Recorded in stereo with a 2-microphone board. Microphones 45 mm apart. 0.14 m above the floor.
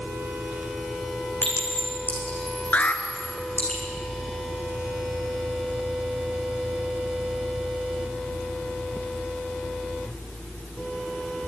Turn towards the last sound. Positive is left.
turn(degrees=40)  # may be behind; listen again after turning